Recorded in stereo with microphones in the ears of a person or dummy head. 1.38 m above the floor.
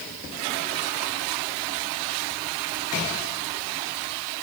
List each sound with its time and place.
Only background noise.